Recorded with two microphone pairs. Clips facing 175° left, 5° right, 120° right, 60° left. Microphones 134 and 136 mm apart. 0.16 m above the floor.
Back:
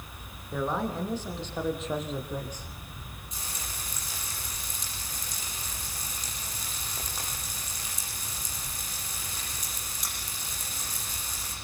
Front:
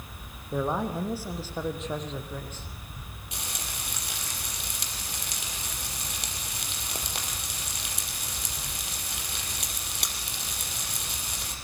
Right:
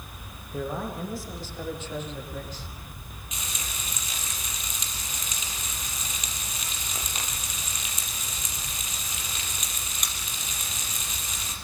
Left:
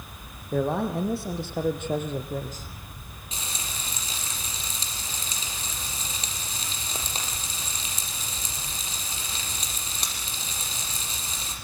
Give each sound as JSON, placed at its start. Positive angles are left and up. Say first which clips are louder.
{"t": 0.5, "sound": "a man speaking", "louder": "front 2 dB, left 7 dB", "azimuth_deg": 70, "distance_m": 6.0}
{"t": 3.3, "sound": "frying", "louder": "front 3 dB, left 2 dB", "azimuth_deg": 0, "distance_m": 6.0}